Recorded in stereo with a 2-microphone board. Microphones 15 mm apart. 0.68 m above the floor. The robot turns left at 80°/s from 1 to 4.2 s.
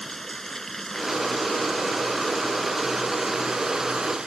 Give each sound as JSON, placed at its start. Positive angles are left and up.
{"t": 0.0, "sound": "running water", "azimuth_deg": 150}